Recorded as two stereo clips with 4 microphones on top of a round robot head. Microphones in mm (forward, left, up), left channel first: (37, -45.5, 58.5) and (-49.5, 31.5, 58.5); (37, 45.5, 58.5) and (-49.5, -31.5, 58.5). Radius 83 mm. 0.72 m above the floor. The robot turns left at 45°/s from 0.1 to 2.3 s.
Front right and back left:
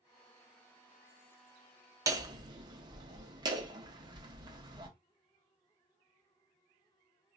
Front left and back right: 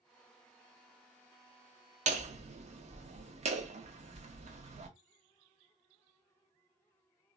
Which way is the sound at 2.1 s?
160° right.